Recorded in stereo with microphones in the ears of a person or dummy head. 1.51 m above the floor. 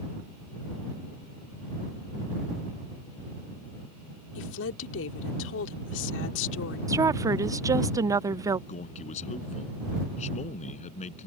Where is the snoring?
I don't hear snoring.